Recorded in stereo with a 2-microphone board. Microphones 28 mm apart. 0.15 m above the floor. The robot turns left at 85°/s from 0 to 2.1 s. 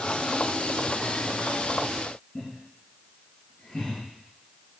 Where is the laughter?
25° left (ahead or behind), 3.5 m.